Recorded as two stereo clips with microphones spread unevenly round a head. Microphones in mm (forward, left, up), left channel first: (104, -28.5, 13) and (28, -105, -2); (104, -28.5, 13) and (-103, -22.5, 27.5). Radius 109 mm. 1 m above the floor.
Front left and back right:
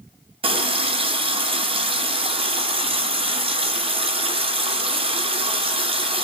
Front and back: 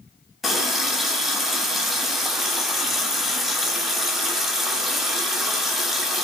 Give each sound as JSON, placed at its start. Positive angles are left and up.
{"t": 0.4, "sound": "a running tap", "azimuth_deg": -95, "distance_m": 0.6}